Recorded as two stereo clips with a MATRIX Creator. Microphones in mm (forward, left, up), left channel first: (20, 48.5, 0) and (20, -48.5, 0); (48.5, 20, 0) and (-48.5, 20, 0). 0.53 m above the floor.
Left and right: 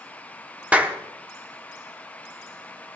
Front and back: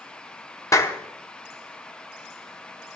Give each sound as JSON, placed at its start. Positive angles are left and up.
{"t": 0.7, "sound": "a clap", "azimuth_deg": -20, "distance_m": 1.1}